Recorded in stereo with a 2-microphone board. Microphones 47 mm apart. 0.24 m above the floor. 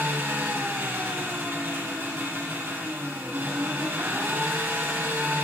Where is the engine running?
65° right (ahead or behind), 5 m.